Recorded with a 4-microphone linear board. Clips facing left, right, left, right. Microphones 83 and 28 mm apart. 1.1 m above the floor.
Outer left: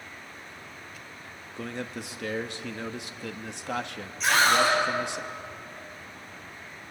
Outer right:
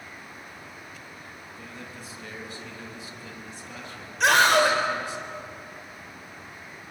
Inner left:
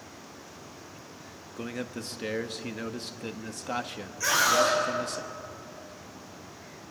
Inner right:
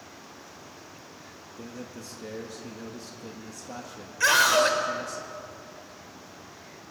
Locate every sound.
1.6 s a man speaking: 70° left (ahead or behind), 1.2 m
4.2 s a scream: 70° right (ahead or behind), 4.5 m